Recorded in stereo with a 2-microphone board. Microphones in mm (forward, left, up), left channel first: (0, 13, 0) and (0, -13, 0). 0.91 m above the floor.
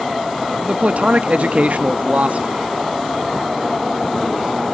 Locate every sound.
0.6 s a man speaking: 60° right (ahead or behind), 1.0 m